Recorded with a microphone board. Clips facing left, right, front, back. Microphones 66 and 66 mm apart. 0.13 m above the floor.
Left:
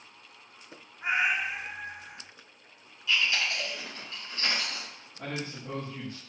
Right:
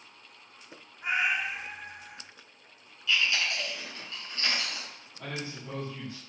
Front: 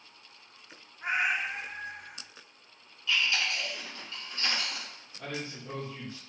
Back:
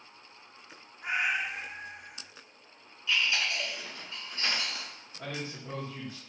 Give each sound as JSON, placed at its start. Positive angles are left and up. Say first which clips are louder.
{"t": 1.0, "sound": "a cat meowing", "louder": "left 1 dB, front 1 dB", "azimuth_deg": 40, "distance_m": 0.5}
{"t": 3.1, "sound": "chewing", "louder": "even, even", "azimuth_deg": 125, "distance_m": 1.8}
{"t": 5.2, "sound": "a man speaking", "louder": "left 2 dB, even", "azimuth_deg": 120, "distance_m": 1.7}